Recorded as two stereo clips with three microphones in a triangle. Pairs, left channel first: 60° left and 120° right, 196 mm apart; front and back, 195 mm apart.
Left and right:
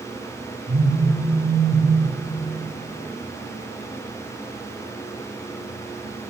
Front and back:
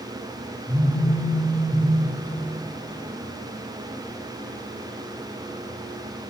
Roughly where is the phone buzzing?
Behind right.